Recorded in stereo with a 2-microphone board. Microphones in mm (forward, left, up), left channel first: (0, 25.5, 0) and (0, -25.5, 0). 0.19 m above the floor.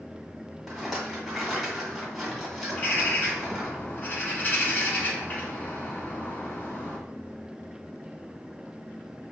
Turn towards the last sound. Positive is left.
turn(degrees=35)  # may be behind; listen again after turning